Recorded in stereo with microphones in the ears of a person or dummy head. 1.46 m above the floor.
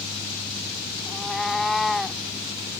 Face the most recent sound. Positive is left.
turn(degrees=5)  # may be behind; listen again after turning